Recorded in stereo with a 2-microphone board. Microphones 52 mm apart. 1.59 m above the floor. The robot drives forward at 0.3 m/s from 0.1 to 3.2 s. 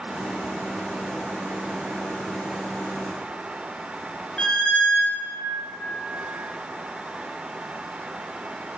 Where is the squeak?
15° left (ahead or behind), 0.7 m.